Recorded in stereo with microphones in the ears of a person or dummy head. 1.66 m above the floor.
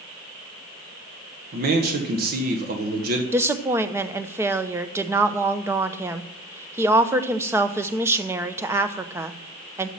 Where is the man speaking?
50° right (ahead or behind), 1.3 m.